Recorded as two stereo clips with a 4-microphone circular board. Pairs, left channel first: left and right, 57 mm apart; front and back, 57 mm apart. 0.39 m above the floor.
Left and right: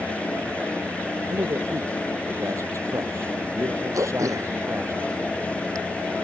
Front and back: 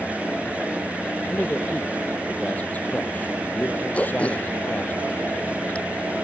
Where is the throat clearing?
65° right.